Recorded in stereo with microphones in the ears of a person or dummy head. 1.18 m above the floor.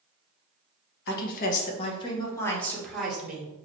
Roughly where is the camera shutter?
I don't hear a camera shutter.